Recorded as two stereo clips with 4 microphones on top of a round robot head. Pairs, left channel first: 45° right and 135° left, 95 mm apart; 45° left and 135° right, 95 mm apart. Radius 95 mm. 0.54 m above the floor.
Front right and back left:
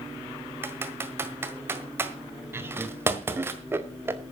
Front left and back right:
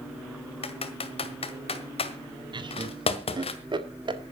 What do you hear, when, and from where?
0.6 s typing on a keyboard: 70° left, 1.8 m
2.5 s laughter: 160° right, 2 m